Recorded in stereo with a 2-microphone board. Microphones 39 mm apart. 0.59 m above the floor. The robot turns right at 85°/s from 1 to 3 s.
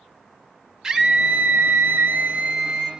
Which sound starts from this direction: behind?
A scream, at 0.8 s.